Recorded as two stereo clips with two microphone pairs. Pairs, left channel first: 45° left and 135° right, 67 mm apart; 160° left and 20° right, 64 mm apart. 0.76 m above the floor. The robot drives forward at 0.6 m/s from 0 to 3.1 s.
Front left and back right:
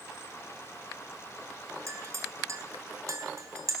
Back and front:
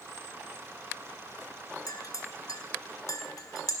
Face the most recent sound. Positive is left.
turn(degrees=-175)